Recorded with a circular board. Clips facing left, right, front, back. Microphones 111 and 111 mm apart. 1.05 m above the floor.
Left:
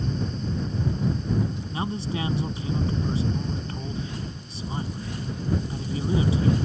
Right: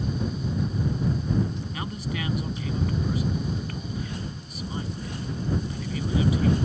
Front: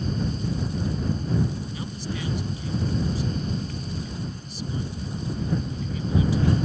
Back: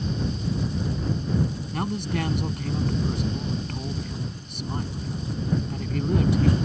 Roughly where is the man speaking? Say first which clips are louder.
Left 3 dB, back 5 dB; behind left.